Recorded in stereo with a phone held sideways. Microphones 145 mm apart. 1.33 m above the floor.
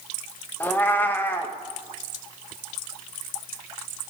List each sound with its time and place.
0.6 s a cat meowing: 15° left (ahead or behind), 0.6 m